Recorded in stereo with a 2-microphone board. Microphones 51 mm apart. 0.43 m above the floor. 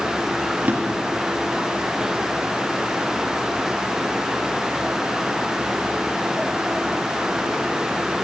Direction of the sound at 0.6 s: 35° right (ahead or behind).